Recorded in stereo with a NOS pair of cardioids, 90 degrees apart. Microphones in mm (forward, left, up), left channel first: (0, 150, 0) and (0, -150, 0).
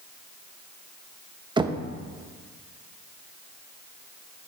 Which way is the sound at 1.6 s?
15° right.